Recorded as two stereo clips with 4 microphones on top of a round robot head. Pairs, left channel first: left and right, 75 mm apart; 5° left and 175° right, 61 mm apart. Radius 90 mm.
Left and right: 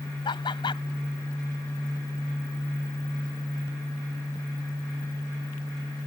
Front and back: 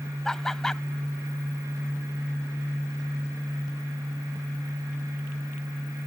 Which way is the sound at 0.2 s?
85° left.